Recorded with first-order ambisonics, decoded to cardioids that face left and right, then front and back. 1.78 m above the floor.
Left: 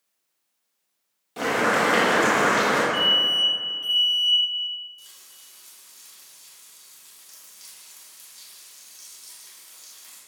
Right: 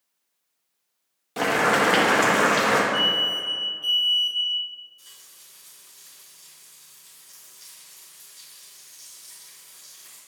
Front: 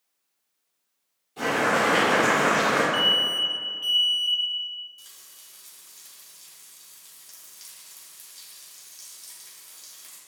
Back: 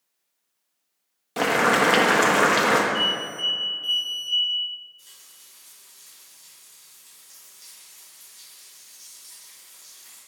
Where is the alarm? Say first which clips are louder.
Left 2 dB, front 3 dB; 5° left, 2 m.